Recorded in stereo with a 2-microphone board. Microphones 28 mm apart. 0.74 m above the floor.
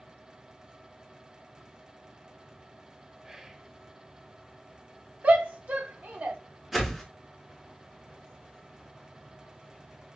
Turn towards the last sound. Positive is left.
turn(degrees=-5)  # may be behind; listen again after turning